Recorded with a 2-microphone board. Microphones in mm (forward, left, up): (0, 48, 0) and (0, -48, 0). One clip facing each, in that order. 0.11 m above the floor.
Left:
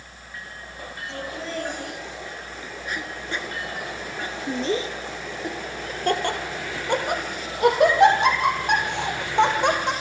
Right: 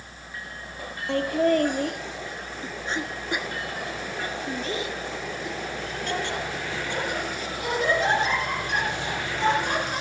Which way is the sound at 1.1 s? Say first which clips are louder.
Right 12 dB; 60° right (ahead or behind).